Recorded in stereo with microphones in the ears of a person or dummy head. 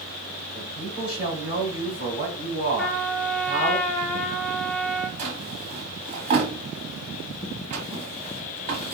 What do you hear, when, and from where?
0.5 s a man speaking: 30° left (ahead or behind), 2.5 m
2.8 s a trumpet: 5° left (ahead or behind), 1.0 m
5.2 s a drawer: 45° right (ahead or behind), 1.5 m